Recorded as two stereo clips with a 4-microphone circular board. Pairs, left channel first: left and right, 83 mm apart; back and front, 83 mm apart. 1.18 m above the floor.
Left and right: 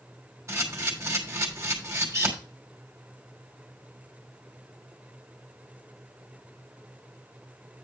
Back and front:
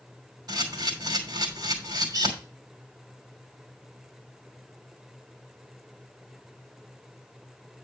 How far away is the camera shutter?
About 3 m.